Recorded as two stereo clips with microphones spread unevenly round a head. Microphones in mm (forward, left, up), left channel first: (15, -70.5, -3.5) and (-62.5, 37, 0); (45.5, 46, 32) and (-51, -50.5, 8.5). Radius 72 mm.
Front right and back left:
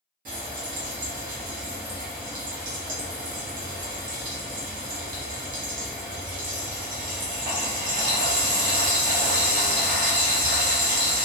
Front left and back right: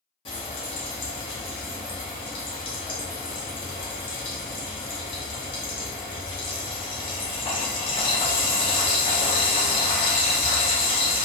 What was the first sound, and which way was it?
Frying, 95° left.